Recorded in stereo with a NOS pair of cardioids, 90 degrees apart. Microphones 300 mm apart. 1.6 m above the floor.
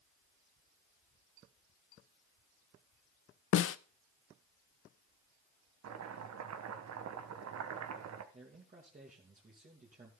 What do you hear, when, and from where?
3.5 s a snare drum: 50° left, 0.7 m
5.8 s chopping: 60° right, 1.5 m
8.3 s a man speaking: 25° right, 2.5 m